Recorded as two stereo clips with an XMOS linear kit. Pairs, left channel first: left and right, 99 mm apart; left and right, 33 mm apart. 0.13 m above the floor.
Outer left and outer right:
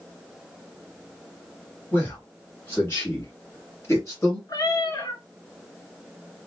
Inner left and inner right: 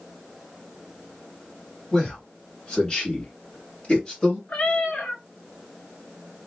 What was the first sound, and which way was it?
A man speaking, 20° left (ahead or behind).